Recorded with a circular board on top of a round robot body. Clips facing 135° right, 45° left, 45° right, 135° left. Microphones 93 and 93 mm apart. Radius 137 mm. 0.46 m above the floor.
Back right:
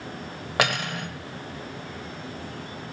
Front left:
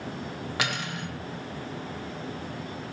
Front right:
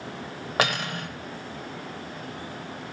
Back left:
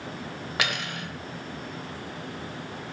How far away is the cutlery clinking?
About 1.4 m.